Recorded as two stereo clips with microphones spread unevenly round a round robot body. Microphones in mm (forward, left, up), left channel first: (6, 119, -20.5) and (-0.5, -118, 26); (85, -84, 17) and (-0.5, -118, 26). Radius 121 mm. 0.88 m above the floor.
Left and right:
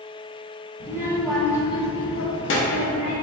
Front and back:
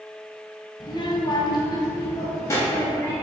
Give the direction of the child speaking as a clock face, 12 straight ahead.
12 o'clock.